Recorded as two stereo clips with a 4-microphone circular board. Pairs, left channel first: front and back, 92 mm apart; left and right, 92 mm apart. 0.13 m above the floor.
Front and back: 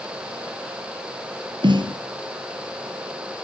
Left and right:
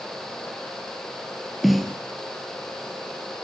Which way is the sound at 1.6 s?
Straight behind.